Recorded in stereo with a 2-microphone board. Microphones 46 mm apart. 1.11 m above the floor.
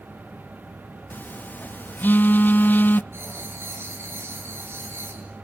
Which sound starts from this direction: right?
Writing, at 3.1 s.